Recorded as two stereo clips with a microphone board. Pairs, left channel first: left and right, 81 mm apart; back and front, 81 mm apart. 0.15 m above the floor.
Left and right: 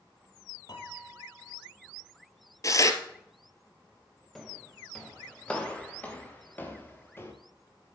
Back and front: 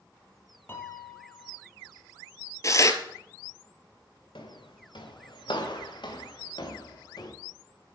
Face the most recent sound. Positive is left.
turn(degrees=150)